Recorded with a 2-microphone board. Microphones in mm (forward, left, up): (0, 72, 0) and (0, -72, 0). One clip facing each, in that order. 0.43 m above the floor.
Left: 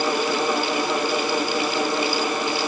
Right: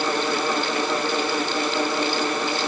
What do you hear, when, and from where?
Only background noise.